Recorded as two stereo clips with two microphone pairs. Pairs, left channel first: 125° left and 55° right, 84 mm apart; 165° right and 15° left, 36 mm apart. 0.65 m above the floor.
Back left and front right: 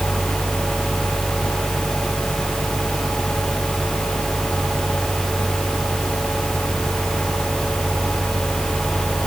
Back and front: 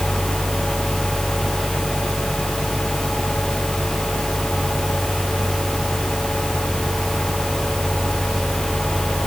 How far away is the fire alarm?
I don't hear a fire alarm.